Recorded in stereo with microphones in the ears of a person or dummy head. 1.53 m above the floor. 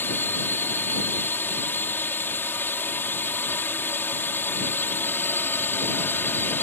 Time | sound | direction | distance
0.0 | a drone | 10° left (ahead or behind) | ?